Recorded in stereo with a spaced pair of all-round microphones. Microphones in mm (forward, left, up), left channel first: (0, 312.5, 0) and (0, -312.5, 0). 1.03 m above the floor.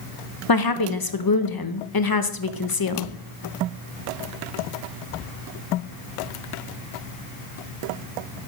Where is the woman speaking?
35° left (ahead or behind), 0.8 m.